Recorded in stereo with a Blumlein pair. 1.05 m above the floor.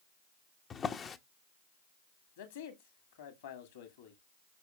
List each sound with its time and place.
0.7 s a drawer: 20° left, 0.6 m
2.4 s a man speaking: 60° left, 2.5 m